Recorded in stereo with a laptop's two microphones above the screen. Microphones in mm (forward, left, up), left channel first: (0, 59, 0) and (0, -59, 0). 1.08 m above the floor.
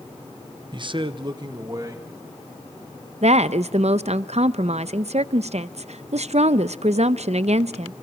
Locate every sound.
0.7 s a man speaking: 40° right (ahead or behind), 0.6 m; by 2.1 s 30° right (ahead or behind), 1.9 m
3.2 s a woman speaking: 65° right (ahead or behind), 0.6 m